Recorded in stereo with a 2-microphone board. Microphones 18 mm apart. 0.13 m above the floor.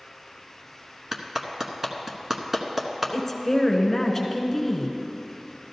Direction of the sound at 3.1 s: 15° left (ahead or behind).